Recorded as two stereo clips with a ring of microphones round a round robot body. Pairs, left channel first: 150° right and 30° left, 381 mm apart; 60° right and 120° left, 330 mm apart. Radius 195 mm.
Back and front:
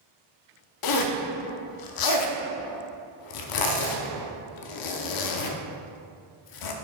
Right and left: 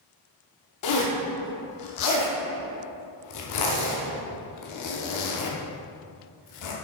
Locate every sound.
0.8 s a zipper: 110° right, 0.7 m